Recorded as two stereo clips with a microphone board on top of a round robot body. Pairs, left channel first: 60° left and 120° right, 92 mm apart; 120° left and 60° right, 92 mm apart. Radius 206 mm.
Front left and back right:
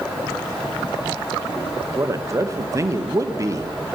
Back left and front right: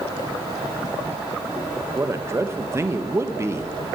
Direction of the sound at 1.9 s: 95° right.